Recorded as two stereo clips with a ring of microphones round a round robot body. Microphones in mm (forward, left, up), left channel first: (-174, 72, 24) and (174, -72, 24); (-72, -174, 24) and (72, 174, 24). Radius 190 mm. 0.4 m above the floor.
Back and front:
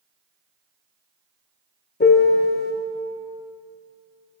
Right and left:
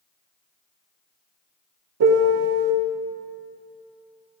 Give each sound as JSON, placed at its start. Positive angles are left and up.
{"t": 2.0, "sound": "a piano", "azimuth_deg": 100, "distance_m": 0.6}